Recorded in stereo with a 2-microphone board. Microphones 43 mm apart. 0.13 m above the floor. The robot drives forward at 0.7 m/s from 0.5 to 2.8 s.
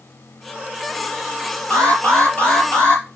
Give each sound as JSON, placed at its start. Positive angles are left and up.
{"t": 1.7, "sound": "an alarm", "side_deg": 30, "distance_m": 4.0}